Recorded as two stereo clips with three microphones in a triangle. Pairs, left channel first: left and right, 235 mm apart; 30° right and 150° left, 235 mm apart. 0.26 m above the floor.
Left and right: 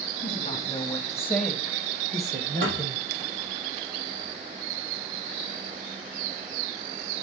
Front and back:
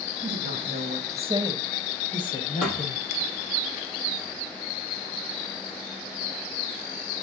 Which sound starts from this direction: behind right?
A thud, at 2.6 s.